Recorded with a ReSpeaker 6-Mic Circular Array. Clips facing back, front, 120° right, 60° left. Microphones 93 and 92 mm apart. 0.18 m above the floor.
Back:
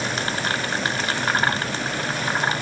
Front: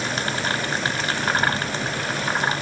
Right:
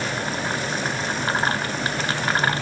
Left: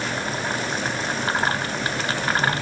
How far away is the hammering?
I don't hear hammering.